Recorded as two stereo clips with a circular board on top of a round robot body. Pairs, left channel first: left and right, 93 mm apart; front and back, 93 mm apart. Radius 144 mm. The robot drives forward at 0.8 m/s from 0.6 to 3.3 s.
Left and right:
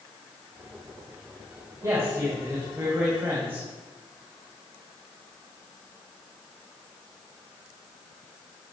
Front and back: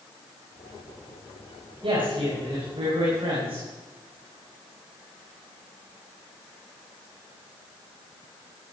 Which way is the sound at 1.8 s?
150° right.